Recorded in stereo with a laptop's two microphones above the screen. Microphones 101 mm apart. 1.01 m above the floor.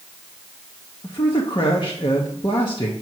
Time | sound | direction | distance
1.0 | a man speaking | 45° left (ahead or behind) | 1.0 m